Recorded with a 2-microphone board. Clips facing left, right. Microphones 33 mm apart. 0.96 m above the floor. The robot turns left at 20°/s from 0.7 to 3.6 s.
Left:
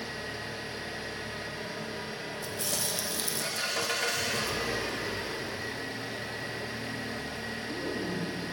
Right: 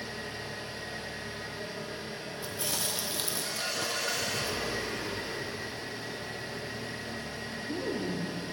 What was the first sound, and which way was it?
An engine running, 125° left.